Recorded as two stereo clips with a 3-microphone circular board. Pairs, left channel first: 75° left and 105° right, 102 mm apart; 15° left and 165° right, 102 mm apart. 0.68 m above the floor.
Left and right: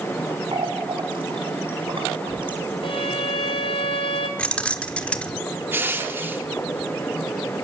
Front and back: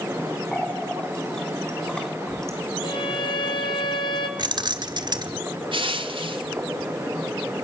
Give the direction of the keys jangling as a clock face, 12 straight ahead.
7 o'clock.